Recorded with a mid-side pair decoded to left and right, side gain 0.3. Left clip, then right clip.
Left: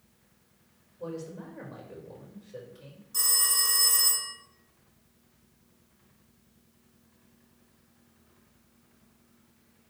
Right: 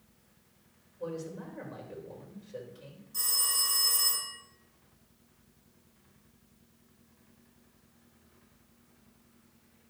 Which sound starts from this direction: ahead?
A man speaking, at 1.0 s.